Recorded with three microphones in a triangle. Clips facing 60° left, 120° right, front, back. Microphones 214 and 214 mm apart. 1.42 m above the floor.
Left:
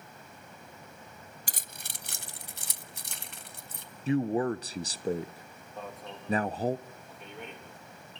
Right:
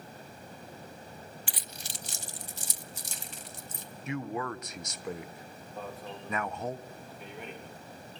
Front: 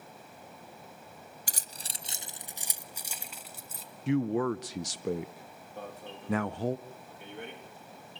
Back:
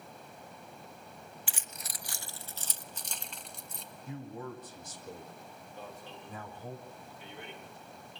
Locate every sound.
1.5 s keys jangling: 30° left, 0.6 m; by 3.9 s 85° left, 1.9 m
4.1 s a man speaking: straight ahead, 0.6 m
5.8 s an alarm: 30° right, 4 m